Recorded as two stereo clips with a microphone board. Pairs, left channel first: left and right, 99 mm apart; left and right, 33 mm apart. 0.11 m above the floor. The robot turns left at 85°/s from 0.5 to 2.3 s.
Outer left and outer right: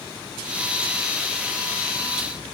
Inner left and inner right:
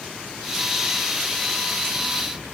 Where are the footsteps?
I don't hear footsteps.